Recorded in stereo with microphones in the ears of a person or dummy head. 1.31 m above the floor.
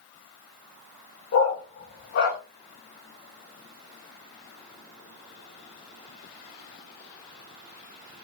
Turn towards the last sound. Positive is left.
turn(degrees=60)  # may be behind; listen again after turning